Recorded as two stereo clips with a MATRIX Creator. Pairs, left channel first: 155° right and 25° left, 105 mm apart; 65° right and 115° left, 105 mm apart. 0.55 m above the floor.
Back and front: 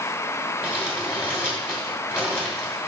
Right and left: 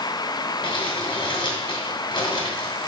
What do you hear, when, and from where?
0.6 s crumpling: 60° right, 2 m